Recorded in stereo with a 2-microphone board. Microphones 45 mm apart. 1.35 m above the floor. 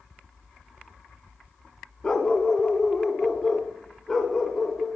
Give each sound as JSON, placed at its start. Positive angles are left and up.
{"t": 2.0, "sound": "a dog barking", "side_deg": 15, "distance_m": 1.3}